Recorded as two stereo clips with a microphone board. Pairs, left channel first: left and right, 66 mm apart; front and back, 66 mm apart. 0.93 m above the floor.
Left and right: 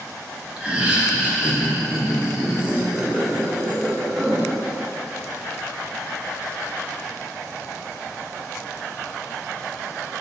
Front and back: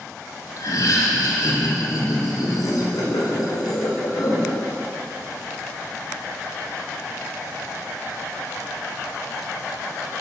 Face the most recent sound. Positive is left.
turn(degrees=-15)